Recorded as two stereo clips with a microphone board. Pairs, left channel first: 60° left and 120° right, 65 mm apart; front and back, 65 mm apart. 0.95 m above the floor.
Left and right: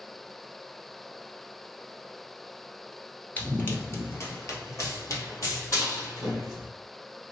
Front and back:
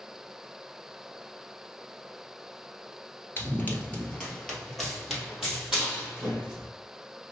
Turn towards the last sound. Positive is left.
turn(degrees=100)